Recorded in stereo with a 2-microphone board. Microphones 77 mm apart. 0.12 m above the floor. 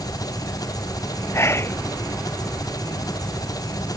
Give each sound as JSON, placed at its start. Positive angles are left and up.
{"t": 0.0, "sound": "an engine running", "side_deg": 55}
{"t": 1.3, "sound": "whispering", "side_deg": 35}